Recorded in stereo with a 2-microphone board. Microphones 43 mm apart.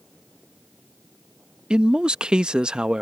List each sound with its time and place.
1.7 s a man speaking: 20° right (ahead or behind)